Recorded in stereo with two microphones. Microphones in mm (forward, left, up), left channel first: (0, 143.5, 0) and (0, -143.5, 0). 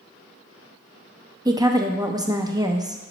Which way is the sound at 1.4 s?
15° right (ahead or behind).